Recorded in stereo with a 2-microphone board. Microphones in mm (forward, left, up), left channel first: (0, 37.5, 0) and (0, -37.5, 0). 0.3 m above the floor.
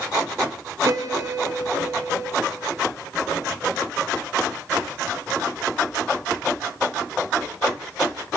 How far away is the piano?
About 1.2 m.